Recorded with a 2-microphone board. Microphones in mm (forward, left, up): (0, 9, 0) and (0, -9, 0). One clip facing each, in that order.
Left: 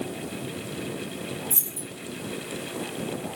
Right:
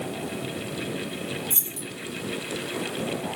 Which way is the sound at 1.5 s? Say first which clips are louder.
Right 1 dB; 65° right (ahead or behind).